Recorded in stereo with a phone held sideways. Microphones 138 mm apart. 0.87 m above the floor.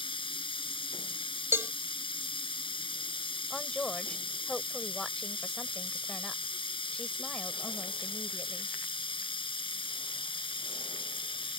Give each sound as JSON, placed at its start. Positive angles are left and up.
{"t": 0.0, "sound": "running water", "side_deg": 35}
{"t": 1.5, "sound": "a cowbell", "side_deg": -15}
{"t": 3.5, "sound": "a woman speaking", "side_deg": 5}